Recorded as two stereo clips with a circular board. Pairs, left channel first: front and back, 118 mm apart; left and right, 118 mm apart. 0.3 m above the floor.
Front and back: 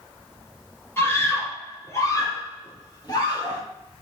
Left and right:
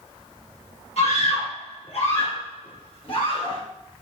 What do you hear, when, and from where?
1.0 s a scream: 70° left, 6.5 m; by 3.6 s 50° left, 8 m